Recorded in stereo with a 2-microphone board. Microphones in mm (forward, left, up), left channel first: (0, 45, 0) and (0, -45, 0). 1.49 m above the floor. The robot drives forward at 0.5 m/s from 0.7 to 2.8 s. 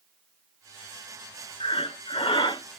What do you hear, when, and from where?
1.6 s breathing: 70° left (ahead or behind), 0.5 m; by 2.6 s 50° left (ahead or behind), 0.6 m